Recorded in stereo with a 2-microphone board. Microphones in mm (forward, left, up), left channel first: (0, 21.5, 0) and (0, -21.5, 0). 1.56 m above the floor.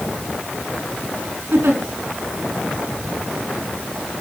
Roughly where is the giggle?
Right.